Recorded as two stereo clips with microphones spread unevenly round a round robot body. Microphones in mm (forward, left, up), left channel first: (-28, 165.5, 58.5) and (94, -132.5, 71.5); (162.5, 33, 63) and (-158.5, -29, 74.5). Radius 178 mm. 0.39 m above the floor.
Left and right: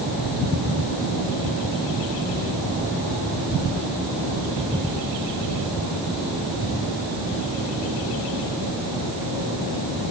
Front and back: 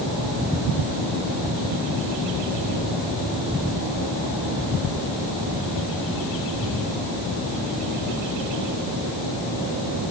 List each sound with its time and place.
Only background noise.